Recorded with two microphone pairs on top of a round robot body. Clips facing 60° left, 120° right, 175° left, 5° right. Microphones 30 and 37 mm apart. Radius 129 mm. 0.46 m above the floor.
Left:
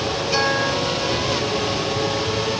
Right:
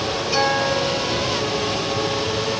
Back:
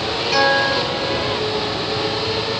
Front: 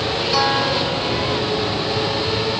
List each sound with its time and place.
0.3 s a guitar: 145° left, 8 m